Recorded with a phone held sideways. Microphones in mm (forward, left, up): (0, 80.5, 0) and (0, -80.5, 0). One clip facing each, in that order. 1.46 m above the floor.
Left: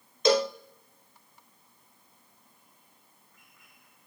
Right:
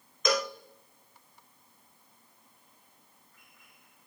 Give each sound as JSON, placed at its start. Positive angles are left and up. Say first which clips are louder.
{"t": 0.2, "sound": "a cowbell", "louder": "left 6 dB", "side_deg": 30, "distance_m": 0.6}